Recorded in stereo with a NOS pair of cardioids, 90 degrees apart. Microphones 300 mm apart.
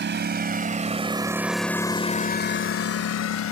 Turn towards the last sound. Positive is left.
turn(degrees=70)